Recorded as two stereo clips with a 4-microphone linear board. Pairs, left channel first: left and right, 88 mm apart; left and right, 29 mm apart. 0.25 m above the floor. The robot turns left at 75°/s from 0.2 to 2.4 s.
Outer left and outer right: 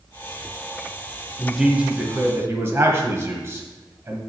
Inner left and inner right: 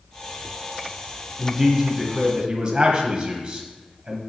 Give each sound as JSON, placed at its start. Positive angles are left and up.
{"t": 1.4, "sound": "a man speaking", "azimuth_deg": 0, "distance_m": 1.5}